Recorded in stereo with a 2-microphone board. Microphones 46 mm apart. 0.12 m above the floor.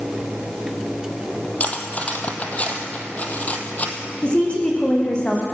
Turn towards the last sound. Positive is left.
turn(degrees=20)  # may be behind; listen again after turning